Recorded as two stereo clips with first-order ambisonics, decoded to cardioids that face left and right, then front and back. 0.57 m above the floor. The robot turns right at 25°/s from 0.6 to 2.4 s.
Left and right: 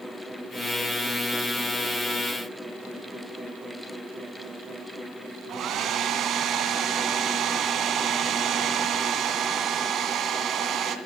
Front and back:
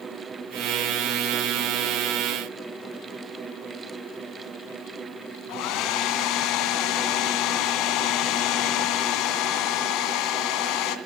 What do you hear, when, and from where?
5.5 s a hair dryer: 35° right, 1.9 m